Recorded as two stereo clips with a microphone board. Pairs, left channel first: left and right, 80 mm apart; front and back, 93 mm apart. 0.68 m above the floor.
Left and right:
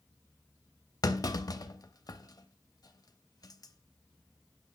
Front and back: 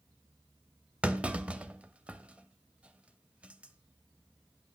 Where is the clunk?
105° left, 0.6 m.